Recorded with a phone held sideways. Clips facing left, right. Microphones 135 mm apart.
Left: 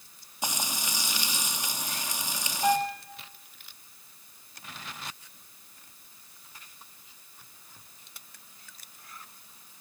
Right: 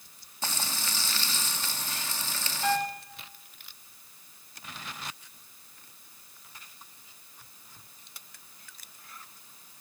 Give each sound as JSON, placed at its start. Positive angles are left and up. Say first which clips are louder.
{"t": 0.4, "sound": "frying", "louder": "left 2 dB", "side_deg": 15, "distance_m": 2.0}
{"t": 2.6, "sound": "a piano", "louder": "left 3 dB", "side_deg": 25, "distance_m": 3.0}